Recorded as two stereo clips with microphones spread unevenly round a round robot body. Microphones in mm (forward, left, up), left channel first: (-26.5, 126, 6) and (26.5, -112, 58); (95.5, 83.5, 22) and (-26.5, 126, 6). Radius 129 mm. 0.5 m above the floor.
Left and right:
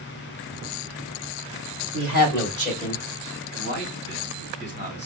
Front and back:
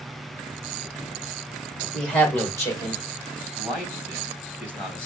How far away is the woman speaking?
About 2.5 m.